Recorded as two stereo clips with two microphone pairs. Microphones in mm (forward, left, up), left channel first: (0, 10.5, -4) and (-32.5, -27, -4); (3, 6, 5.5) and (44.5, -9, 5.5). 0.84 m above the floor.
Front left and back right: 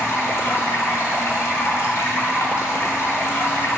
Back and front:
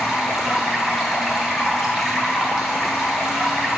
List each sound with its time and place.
0.0 s running water: 60° left, 1.5 m